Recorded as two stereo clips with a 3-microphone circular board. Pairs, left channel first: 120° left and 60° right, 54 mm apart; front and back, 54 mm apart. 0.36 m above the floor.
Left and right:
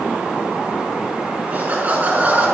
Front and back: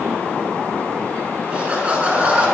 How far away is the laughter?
About 5 m.